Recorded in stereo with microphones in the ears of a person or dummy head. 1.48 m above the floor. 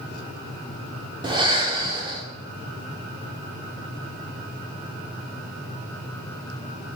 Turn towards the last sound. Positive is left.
turn(degrees=-20)  # may be behind; listen again after turning